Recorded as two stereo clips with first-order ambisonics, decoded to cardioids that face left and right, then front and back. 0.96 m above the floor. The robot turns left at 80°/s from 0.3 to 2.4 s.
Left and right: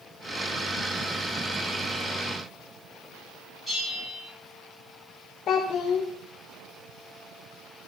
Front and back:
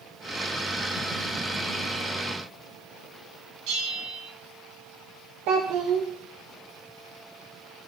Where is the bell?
175° left, 3.5 m.